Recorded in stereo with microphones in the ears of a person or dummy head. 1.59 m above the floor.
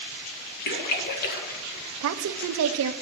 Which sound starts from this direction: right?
A woman speaking, at 2.0 s.